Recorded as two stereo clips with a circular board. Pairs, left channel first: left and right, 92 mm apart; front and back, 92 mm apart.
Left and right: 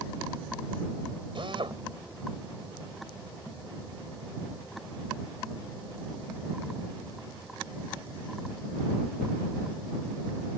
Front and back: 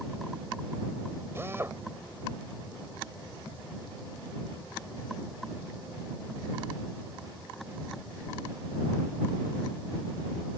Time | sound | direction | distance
1.4 | a drill | 115° right | ?